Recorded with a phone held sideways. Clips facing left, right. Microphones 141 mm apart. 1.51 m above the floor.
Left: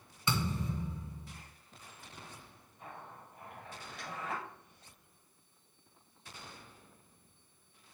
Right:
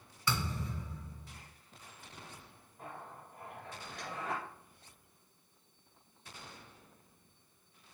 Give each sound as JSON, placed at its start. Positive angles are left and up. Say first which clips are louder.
{"t": 0.3, "sound": "a thud", "louder": "left 2 dB", "side_deg": 25, "distance_m": 1.9}
{"t": 2.8, "sound": "a zipper", "louder": "right 2 dB", "side_deg": -70, "distance_m": 4.0}